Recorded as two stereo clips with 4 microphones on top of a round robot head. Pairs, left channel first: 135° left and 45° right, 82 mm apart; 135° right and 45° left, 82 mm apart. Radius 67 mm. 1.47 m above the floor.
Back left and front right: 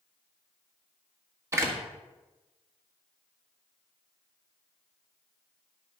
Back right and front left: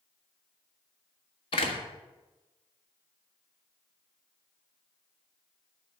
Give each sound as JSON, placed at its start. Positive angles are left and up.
{"t": 1.5, "sound": "a door slam", "azimuth_deg": -105, "distance_m": 1.6}